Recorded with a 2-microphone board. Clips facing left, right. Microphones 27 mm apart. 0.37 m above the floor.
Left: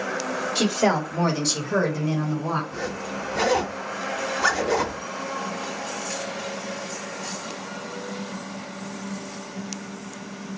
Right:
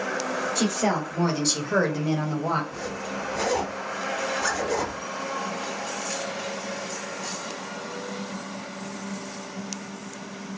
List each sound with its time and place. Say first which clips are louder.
0.6 s a woman speaking: left 5 dB; 45° left (ahead or behind), 1.1 m; by 2.6 s 45° right (ahead or behind), 1.4 m
2.7 s a zipper: left 2 dB; 30° left (ahead or behind), 0.7 m